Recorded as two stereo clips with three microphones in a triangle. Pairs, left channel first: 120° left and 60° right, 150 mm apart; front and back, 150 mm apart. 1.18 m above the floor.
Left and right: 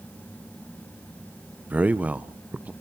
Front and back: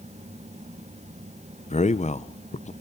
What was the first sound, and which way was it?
A man speaking, 20° left.